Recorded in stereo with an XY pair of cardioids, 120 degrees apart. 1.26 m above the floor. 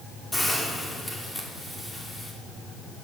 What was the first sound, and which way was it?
A hiss, 10° left.